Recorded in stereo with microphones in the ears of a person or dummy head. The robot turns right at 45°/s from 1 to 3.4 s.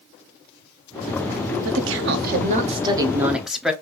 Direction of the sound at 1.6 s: 85° right.